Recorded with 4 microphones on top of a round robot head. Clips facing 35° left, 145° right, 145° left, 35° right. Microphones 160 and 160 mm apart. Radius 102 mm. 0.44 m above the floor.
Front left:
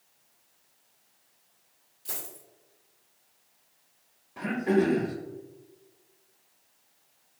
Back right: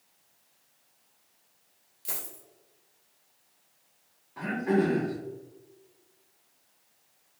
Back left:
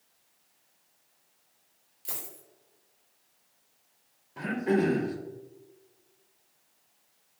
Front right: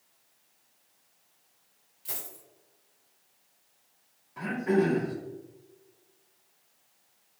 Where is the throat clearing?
95° left, 0.7 m.